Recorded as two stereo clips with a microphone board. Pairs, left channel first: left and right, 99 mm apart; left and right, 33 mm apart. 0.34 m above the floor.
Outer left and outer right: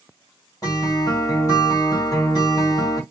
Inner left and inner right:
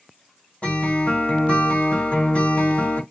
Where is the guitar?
35° left (ahead or behind), 1.6 m.